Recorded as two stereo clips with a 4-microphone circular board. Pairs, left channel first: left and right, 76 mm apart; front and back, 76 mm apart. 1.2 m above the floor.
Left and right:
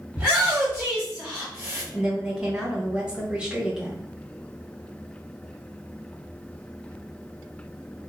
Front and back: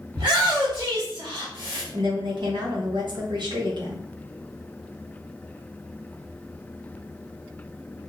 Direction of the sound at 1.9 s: 170° right.